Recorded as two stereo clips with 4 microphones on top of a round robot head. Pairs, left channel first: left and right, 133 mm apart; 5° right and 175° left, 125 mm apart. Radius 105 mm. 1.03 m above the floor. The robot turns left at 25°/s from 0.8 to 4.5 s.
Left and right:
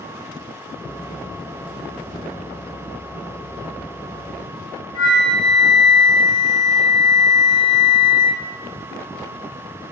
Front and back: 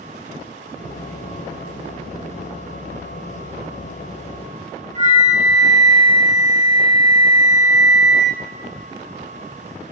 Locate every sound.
5.0 s a flute: 145° left, 7.5 m